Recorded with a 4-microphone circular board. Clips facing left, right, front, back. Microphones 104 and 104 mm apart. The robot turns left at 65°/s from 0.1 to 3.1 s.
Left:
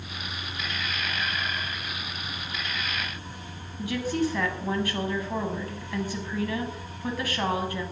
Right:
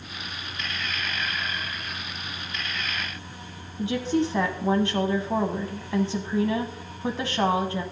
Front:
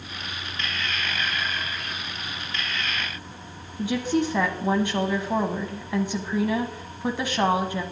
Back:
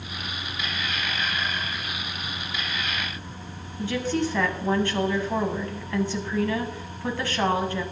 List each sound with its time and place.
3.8 s a woman speaking: 55° right, 1.3 m